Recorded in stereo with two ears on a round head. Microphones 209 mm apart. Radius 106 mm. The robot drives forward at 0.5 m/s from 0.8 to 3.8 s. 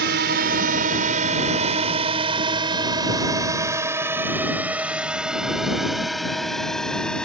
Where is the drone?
45° right (ahead or behind); by 7.2 s 5° left (ahead or behind).